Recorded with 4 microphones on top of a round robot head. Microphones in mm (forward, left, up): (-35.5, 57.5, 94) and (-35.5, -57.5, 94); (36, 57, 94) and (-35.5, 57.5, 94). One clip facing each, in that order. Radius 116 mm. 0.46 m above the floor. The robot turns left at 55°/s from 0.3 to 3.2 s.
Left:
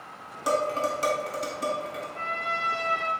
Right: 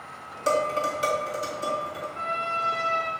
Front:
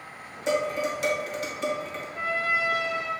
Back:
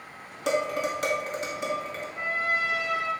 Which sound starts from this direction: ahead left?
A trumpet, at 2.1 s.